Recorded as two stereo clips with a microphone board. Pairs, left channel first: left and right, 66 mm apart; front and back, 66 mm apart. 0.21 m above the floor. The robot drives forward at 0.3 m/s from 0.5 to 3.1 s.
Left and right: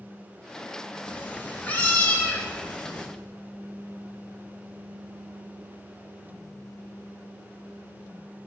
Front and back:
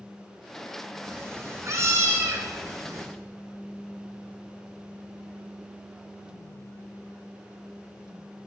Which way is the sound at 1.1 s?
145° left.